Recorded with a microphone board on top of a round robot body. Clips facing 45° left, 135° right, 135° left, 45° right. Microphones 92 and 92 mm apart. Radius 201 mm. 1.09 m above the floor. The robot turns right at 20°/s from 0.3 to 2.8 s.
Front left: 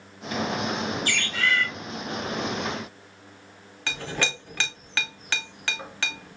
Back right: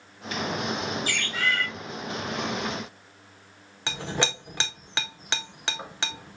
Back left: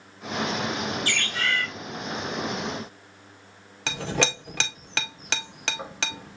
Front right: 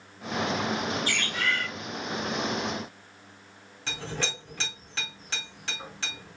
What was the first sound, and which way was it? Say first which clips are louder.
A bird: front left 2 dB, back left 1 dB; 135° left.